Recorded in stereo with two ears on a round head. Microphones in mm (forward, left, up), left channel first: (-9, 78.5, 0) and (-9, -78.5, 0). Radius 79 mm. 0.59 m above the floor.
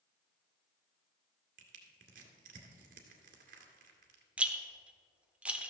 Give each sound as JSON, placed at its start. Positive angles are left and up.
{"t": 1.6, "sound": "crushing", "side_deg": -55, "distance_m": 1.9}
{"t": 4.4, "sound": "a rattle", "side_deg": -5, "distance_m": 0.9}